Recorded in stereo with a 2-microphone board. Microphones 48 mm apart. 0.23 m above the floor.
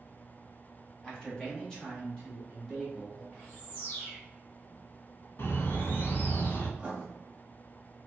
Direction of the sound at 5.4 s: 50° left (ahead or behind).